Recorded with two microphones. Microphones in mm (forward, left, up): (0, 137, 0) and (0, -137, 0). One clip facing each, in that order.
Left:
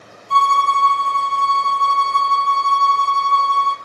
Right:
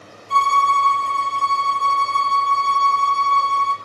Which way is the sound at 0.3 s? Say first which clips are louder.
Left 2 dB; 50° left (ahead or behind).